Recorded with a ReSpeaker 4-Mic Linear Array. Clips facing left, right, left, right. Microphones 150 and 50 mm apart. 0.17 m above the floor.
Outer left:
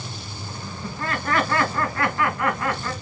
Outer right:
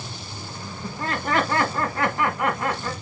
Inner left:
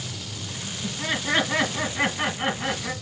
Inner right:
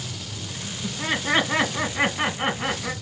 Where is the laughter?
20° right (ahead or behind), 1.7 m.